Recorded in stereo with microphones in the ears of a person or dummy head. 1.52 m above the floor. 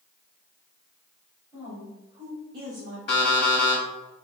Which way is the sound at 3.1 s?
30° left (ahead or behind).